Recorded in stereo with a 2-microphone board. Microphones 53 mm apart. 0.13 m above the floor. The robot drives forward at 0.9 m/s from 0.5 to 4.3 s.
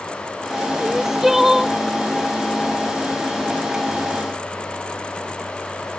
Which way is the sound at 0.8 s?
10° right (ahead or behind).